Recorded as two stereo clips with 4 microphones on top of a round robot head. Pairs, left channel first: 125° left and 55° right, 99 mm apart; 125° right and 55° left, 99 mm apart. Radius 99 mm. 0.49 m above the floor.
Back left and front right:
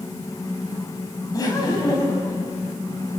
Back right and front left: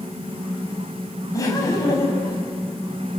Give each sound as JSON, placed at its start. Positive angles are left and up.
{"t": 1.3, "sound": "laughter", "azimuth_deg": 180, "distance_m": 5.0}